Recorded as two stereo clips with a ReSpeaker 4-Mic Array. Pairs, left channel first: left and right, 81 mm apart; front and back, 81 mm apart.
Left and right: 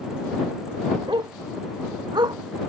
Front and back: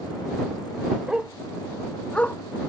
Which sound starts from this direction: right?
A dog barking, at 1.1 s.